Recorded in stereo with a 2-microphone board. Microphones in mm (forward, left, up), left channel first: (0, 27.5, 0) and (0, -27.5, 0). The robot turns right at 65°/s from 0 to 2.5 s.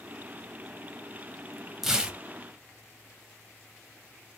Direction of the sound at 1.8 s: 5° right (ahead or behind).